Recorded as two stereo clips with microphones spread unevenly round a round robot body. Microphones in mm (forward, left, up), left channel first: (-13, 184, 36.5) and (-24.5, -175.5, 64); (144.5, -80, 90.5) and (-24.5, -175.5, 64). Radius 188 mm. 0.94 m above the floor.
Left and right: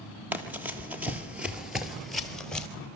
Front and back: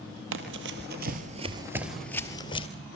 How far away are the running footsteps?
About 1.4 m.